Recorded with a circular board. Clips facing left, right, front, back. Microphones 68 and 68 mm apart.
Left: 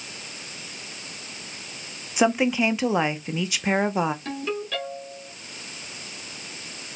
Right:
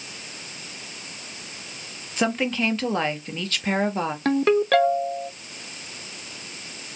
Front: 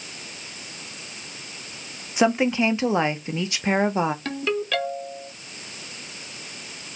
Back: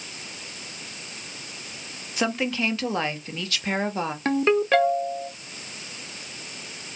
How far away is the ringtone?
About 0.8 m.